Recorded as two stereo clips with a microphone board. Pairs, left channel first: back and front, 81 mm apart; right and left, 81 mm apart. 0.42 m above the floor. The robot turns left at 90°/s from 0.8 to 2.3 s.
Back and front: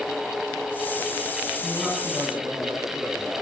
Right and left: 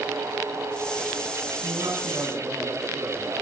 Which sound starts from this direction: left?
A woman speaking, at 1.6 s.